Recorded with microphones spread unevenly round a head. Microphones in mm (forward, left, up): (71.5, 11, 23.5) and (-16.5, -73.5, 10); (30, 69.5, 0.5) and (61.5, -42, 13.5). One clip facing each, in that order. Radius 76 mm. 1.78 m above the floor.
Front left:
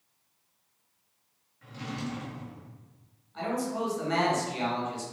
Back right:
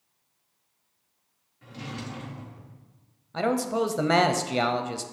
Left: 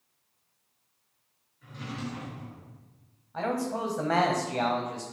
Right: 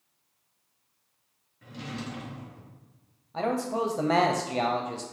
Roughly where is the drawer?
Right.